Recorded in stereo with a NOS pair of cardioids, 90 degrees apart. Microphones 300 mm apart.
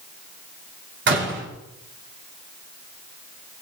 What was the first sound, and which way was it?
A door slam, 40° right.